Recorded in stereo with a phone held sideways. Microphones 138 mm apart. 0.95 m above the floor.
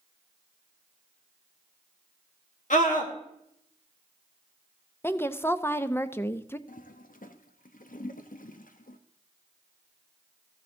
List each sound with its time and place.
2.7 s a scream: 70° left (ahead or behind), 2.5 m
5.0 s a woman speaking: 15° left (ahead or behind), 0.6 m
6.7 s a toilet flushing: 85° left, 0.7 m